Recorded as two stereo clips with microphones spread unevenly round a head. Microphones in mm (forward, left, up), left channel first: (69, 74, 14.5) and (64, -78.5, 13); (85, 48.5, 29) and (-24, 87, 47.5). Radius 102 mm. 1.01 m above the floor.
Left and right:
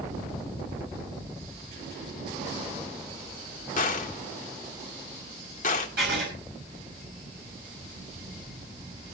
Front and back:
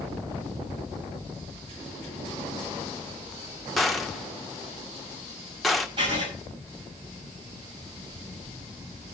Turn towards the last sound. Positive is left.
turn(degrees=-135)